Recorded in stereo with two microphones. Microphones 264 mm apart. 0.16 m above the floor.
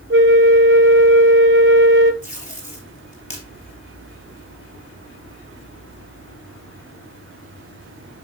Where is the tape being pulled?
25° left (ahead or behind), 3 m.